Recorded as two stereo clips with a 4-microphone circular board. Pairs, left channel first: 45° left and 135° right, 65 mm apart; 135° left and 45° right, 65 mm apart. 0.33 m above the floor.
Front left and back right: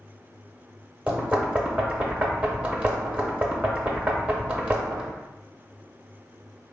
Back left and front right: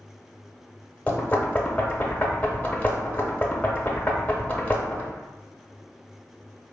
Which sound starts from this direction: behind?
Knocking, at 1.1 s.